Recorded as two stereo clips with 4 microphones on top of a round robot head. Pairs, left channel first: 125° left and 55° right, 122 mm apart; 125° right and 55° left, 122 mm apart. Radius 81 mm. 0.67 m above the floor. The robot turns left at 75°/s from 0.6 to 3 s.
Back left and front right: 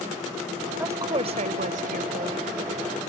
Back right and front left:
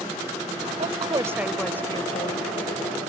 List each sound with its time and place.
0.8 s a woman speaking: 20° left; by 2.5 s 105° right